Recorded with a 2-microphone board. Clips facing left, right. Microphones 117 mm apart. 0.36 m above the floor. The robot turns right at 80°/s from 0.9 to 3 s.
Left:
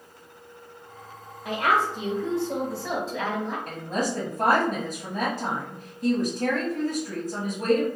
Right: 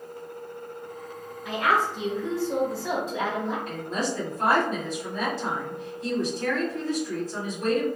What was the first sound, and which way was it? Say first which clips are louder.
A woman speaking: left 1 dB; 70° left.